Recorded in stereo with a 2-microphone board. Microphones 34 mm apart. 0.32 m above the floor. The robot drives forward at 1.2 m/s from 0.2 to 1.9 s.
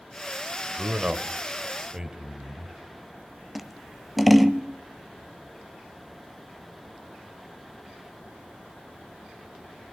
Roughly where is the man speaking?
Right.